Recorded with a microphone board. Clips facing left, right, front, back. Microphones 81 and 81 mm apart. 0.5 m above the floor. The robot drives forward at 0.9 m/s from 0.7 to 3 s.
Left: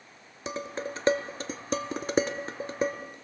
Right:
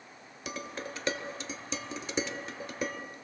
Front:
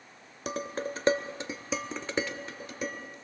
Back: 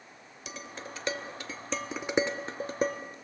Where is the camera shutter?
I don't hear a camera shutter.